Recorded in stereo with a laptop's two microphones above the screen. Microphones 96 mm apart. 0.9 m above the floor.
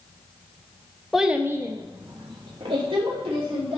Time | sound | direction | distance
1.1 | a child speaking | centre (ahead or behind) | 0.7 m